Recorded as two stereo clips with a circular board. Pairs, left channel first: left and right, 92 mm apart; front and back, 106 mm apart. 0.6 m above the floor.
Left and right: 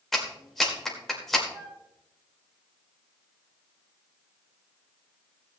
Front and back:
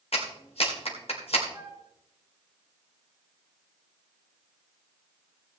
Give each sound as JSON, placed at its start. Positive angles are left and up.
{"t": 0.1, "sound": "a clap", "azimuth_deg": 0, "distance_m": 2.0}
{"t": 1.5, "sound": "a flute", "azimuth_deg": -115, "distance_m": 7.5}